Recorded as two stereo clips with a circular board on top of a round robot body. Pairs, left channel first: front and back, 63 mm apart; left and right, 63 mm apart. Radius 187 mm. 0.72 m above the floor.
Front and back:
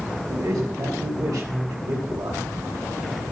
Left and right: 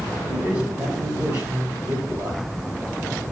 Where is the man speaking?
145° right, 4 m.